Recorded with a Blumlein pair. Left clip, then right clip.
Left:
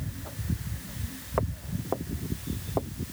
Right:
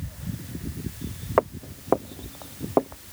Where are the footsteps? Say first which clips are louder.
Right 9 dB; 65° right.